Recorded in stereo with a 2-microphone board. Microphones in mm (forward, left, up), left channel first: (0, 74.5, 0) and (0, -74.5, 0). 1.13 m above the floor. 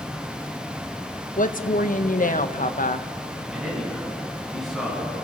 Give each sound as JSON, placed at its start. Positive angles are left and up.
{"t": 1.4, "sound": "a woman speaking", "side_deg": 60, "distance_m": 1.1}
{"t": 3.5, "sound": "a man speaking", "side_deg": 0, "distance_m": 9.5}